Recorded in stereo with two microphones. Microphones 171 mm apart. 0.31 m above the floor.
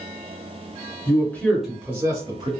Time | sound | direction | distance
1.1 | a man speaking | 20° left (ahead or behind) | 1.0 m